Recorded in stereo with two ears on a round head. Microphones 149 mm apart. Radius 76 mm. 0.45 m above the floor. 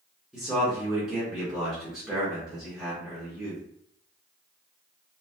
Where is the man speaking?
5° right (ahead or behind), 1.1 m.